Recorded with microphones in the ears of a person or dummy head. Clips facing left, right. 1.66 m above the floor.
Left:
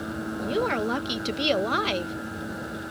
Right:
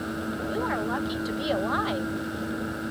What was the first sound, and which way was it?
A woman speaking, 35° left (ahead or behind).